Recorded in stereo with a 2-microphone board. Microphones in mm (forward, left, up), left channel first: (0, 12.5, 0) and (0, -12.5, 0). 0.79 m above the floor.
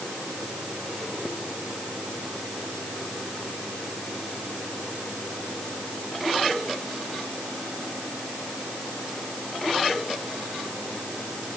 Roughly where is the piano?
I don't hear a piano.